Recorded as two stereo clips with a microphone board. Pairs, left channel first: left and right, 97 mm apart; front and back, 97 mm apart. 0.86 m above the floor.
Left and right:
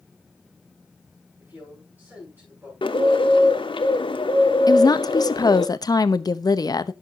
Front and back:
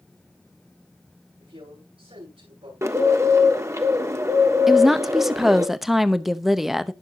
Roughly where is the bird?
Behind left.